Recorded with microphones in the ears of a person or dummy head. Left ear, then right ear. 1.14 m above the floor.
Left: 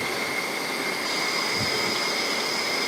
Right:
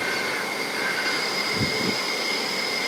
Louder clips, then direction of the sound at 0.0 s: Right 2 dB; 15° right (ahead or behind).